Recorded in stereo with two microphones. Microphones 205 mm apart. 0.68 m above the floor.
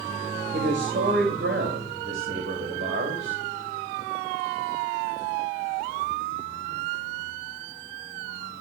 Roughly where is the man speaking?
Right.